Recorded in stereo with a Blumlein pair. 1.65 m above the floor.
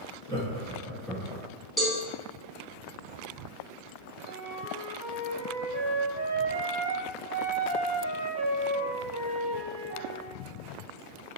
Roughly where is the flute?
Ahead right.